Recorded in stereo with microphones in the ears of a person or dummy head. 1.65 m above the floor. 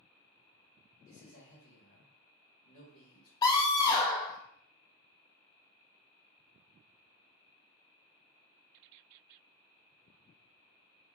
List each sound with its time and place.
1.1 s a man speaking: 55° left (ahead or behind), 1.7 m
3.4 s a scream: 20° left (ahead or behind), 0.8 m